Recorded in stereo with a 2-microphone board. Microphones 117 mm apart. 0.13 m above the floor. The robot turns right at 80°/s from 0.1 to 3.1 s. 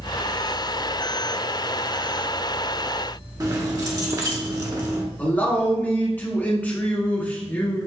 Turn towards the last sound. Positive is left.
turn(degrees=15)  # may be behind; listen again after turning